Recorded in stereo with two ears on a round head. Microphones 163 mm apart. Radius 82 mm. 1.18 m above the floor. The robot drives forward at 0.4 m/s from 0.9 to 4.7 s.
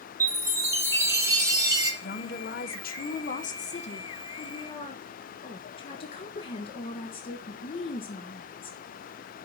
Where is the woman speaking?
55° left (ahead or behind), 0.8 m; by 8.8 s 30° left (ahead or behind), 1.3 m.